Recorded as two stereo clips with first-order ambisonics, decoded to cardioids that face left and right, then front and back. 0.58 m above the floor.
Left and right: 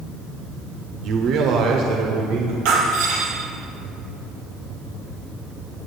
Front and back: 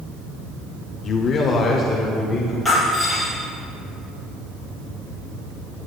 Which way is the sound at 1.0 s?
55° right.